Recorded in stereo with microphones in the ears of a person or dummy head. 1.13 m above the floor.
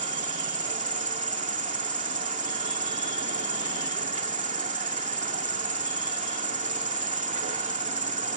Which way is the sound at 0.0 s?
35° right (ahead or behind).